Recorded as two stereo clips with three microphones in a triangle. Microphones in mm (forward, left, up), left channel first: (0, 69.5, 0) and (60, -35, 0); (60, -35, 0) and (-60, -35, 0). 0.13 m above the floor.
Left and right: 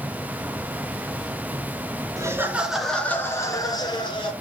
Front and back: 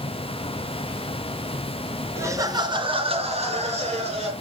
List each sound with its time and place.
2.2 s laughter: 115° right, 2 m; by 4.3 s 160° left, 3.5 m